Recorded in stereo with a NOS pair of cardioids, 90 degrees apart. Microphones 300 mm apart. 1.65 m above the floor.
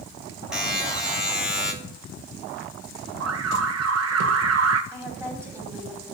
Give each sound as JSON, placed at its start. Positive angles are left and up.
{"t": 0.5, "sound": "a buzzer", "azimuth_deg": -5, "distance_m": 3.5}
{"t": 3.2, "sound": "an alarm", "azimuth_deg": -60, "distance_m": 1.2}
{"t": 4.9, "sound": "a woman speaking", "azimuth_deg": -10, "distance_m": 4.5}